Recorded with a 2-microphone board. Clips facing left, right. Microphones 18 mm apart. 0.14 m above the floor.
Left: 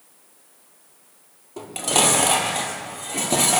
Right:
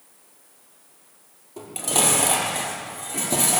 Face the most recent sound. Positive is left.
turn(degrees=25)  # may be behind; listen again after turning